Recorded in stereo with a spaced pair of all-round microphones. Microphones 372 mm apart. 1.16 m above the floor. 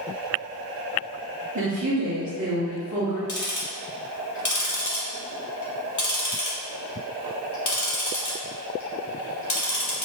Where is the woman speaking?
50° right (ahead or behind), 0.9 m.